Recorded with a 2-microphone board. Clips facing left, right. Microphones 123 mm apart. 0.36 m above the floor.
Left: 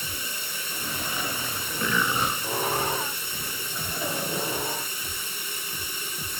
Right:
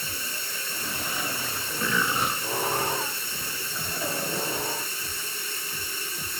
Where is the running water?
15° left (ahead or behind), 2.5 m.